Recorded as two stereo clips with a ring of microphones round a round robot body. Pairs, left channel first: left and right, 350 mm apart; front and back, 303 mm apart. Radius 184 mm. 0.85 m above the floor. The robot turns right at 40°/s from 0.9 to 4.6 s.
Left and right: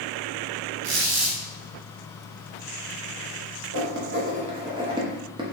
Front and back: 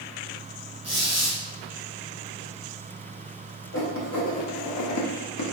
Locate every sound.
0.8 s a squeak: 95° right, 1.5 m; by 1.4 s 75° right, 1.5 m
3.7 s writing: 50° right, 1.0 m; by 5.4 s 15° right, 1.0 m